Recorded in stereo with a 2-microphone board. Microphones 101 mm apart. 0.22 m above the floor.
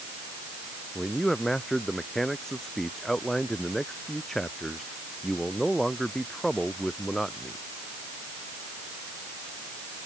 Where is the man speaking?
5° left (ahead or behind).